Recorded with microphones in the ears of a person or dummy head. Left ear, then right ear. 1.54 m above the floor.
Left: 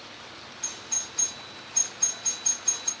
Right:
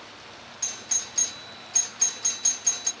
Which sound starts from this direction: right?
A doorbell, at 0.6 s.